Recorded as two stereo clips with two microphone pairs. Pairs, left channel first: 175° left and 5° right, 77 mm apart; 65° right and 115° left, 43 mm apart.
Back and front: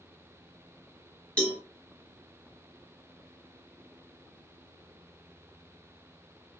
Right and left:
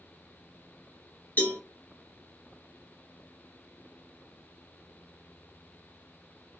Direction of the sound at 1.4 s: 105° right.